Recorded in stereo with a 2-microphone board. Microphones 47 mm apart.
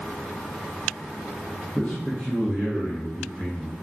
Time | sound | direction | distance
1.8 | a man speaking | 20° left (ahead or behind) | 0.6 m